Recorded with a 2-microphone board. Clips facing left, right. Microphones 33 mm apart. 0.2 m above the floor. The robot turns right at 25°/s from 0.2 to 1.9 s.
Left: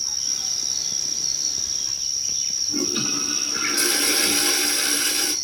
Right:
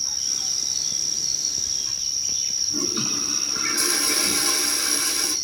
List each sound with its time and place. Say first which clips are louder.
2.7 s a toilet flushing: left 3 dB; 80° left, 1.3 m